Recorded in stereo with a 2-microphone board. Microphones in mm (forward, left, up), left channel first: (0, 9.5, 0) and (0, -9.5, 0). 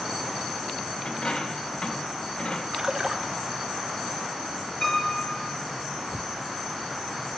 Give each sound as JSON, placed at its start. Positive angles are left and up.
{"t": 1.1, "sound": "a dropped coin", "side_deg": 55, "distance_m": 3.0}
{"t": 2.7, "sound": "a splash", "side_deg": -40, "distance_m": 1.5}
{"t": 4.8, "sound": "a piano", "side_deg": 35, "distance_m": 9.0}